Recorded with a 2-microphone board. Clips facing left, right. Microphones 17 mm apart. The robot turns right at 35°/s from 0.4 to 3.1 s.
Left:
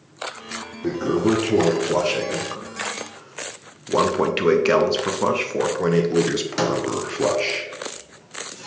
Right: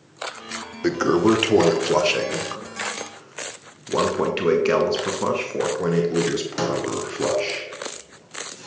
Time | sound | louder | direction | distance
0.8 | a toilet flushing | right 3 dB | 60° right (ahead or behind) | 0.5 m